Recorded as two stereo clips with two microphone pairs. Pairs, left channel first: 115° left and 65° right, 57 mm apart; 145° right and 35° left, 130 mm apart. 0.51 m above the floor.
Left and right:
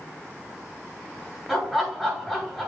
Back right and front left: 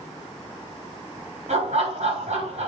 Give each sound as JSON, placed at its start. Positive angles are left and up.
{"t": 1.5, "sound": "laughter", "azimuth_deg": 20, "distance_m": 5.5}